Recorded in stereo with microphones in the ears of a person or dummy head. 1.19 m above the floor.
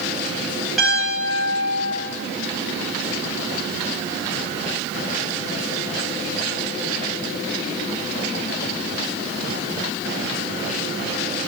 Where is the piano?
Centre (ahead or behind), 6 m.